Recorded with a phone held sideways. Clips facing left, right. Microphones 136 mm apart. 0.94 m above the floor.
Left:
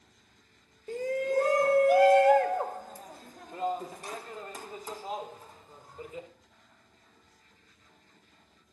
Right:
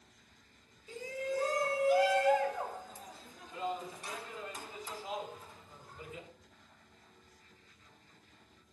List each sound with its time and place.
0.9 s a shout: 55° left (ahead or behind), 1.4 m; by 6.3 s 40° left (ahead or behind), 4.5 m